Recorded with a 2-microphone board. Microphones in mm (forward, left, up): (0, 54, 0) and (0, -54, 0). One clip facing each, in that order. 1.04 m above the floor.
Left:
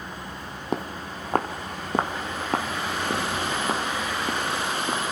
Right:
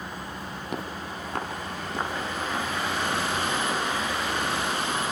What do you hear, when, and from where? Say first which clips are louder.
0.7 s footsteps: left 5 dB; 35° left (ahead or behind), 2 m; by 5.0 s 80° left, 4.5 m